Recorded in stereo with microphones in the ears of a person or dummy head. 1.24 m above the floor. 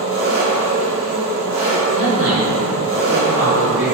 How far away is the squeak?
No squeak in this recording.